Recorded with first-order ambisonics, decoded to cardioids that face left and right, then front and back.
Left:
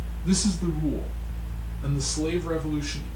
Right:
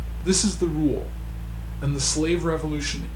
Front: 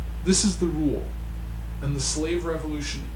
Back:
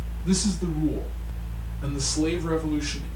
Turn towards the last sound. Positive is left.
turn(degrees=-80)